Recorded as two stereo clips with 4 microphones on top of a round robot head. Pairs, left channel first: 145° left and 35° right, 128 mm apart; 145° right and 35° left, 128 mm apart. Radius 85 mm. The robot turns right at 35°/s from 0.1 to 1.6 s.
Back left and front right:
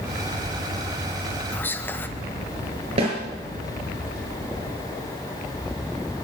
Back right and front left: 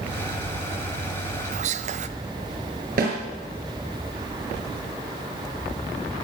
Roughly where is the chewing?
No chewing in this recording.